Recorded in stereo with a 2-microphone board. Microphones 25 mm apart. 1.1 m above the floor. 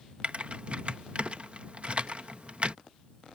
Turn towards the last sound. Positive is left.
turn(degrees=-50)  # may be behind; listen again after turning